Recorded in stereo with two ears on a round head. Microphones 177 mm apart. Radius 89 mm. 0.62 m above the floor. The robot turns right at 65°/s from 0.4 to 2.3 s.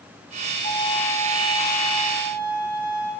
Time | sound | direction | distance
0.6 | a violin | 95° right | 5.5 m